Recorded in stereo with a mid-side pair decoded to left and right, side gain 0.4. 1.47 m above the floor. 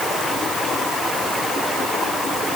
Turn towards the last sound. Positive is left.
No sound to turn to.